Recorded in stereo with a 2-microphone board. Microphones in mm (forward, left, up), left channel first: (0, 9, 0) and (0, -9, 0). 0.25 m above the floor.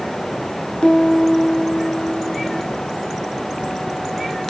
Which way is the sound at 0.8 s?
75° left (ahead or behind).